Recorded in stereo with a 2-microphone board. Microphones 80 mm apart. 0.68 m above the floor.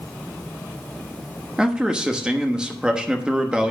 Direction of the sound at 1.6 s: 10° right (ahead or behind).